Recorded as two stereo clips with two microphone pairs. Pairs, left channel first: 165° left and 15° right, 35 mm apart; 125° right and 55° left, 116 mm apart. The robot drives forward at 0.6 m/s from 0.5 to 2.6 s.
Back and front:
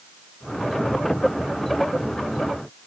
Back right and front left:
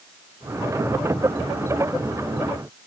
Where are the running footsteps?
I don't hear running footsteps.